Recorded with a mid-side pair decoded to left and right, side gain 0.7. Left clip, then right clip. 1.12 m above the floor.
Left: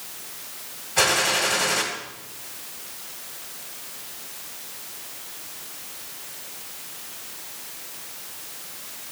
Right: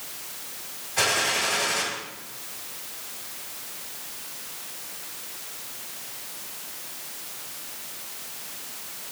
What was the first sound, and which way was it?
A gunshot, 30° left.